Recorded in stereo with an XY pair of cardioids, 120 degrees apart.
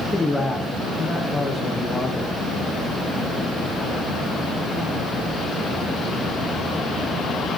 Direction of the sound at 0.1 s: 15° left.